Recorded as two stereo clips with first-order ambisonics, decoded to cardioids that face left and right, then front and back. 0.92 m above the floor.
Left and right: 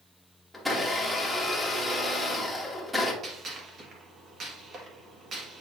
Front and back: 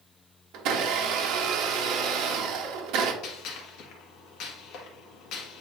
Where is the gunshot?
30° right, 1.4 m.